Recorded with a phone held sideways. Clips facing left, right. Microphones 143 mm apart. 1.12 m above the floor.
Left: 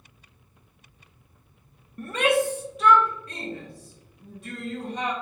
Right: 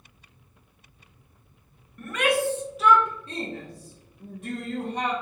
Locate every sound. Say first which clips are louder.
2.0 s a shout: left 2 dB; 35° left (ahead or behind), 0.6 m; by 5.1 s 55° right (ahead or behind), 1.4 m